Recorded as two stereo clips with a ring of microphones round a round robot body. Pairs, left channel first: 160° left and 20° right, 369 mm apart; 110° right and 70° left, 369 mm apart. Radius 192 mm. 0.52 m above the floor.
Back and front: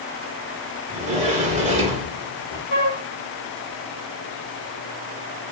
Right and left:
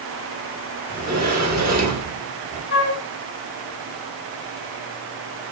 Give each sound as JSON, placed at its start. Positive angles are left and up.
{"t": 0.9, "sound": "a sliding door", "azimuth_deg": 30, "distance_m": 1.1}
{"t": 2.7, "sound": "a flute", "azimuth_deg": -160, "distance_m": 1.3}